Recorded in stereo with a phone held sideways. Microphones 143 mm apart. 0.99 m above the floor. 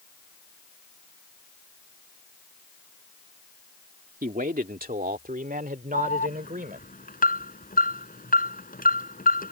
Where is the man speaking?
80° right.